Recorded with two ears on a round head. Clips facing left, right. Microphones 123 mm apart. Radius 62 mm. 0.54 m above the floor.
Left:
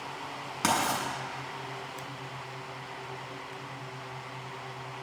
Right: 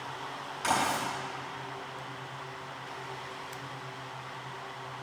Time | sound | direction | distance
0.6 | writing | 75° left (ahead or behind) | 5.5 m